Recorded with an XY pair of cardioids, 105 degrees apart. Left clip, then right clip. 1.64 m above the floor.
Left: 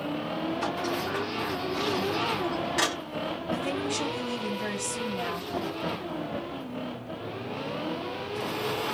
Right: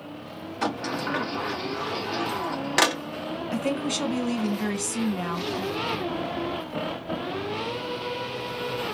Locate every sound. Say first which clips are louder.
0.6 s a sliding door: right 6 dB; 65° right, 1.2 m
3.5 s a woman speaking: right 3 dB; 60° right, 1.9 m